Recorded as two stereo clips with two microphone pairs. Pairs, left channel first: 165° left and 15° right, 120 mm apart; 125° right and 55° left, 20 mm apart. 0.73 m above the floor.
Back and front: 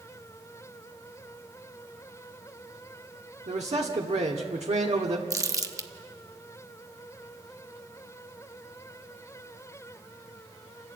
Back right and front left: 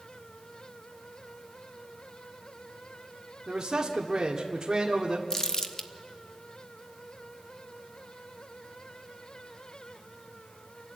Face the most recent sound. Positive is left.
turn(degrees=-70)